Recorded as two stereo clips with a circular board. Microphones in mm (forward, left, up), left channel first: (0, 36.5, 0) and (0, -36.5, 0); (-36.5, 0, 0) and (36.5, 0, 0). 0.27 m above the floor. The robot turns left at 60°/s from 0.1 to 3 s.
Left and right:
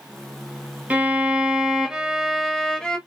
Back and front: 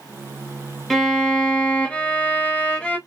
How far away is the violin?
About 0.7 m.